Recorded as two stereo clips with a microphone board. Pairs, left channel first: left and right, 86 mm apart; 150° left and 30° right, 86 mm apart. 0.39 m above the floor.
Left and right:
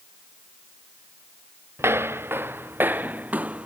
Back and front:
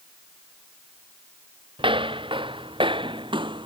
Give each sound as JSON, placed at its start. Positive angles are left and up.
{"t": 1.8, "sound": "footsteps", "azimuth_deg": -30}